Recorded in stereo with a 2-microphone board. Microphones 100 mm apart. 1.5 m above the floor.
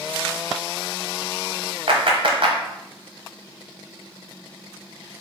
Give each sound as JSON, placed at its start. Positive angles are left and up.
{"t": 1.9, "sound": "a clap", "side_deg": -55, "distance_m": 0.8}